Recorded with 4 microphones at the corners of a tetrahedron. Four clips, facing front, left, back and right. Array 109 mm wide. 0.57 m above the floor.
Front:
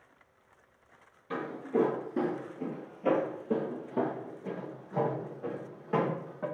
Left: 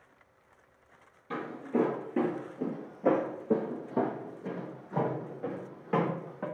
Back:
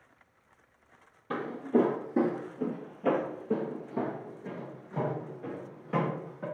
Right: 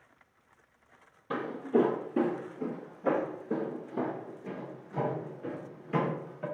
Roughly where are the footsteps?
Behind right.